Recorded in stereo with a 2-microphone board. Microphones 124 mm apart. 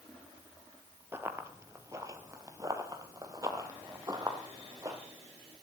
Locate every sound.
1.1 s running footsteps: 20° right (ahead or behind), 1.3 m; by 5.0 s 25° right (ahead or behind), 2.5 m